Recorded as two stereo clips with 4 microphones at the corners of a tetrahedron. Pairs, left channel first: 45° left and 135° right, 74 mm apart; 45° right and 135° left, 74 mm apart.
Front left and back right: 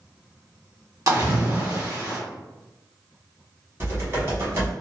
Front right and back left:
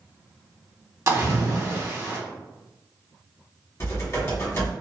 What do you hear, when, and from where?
1.1 s a splash: 175° right, 1.3 m
3.8 s typing on a keyboard: 85° right, 1.3 m